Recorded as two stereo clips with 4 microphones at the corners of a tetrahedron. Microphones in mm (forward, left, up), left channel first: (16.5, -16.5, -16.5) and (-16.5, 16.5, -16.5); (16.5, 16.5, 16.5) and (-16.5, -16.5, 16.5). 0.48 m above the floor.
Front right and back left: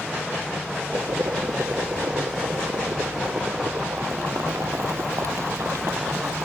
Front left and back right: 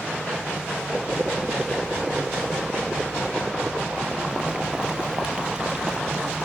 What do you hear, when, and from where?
0.9 s boiling: 155° left